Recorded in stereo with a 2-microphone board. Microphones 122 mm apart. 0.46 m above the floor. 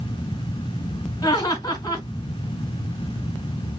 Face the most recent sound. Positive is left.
turn(degrees=35)  # may be behind; listen again after turning